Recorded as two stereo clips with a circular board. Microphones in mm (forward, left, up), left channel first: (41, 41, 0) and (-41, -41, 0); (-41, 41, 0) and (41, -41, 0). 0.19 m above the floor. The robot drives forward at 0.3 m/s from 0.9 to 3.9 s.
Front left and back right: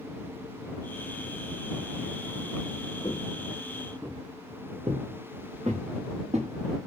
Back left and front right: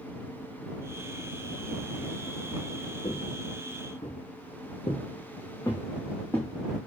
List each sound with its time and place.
3.0 s footsteps: 100° left, 0.9 m; by 6.5 s 145° right, 1.6 m